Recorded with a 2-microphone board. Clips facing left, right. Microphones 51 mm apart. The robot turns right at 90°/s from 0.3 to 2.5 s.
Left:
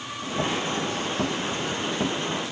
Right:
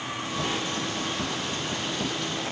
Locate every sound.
Only background noise.